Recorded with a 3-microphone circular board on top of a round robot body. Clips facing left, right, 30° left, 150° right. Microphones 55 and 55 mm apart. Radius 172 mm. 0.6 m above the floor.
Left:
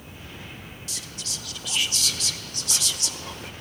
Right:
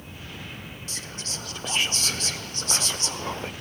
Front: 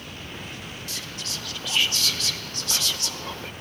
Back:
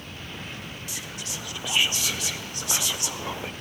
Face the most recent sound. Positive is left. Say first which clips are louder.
# right 1 dB, front 2 dB
turn(degrees=-85)